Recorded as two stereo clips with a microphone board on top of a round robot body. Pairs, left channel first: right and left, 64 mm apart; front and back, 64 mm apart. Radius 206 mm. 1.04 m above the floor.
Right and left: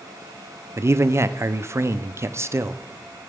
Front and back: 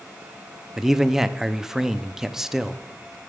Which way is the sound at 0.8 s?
100° left.